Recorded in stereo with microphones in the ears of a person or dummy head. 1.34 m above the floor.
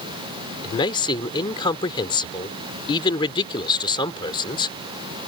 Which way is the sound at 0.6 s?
25° left (ahead or behind).